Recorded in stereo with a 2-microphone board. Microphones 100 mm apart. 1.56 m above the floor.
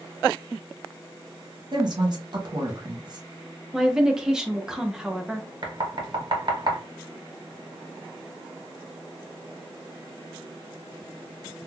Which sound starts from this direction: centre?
A woman speaking, at 3.7 s.